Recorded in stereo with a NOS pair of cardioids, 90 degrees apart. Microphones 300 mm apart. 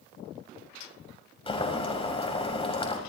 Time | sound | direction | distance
1.5 | boiling | 20° left | 6 m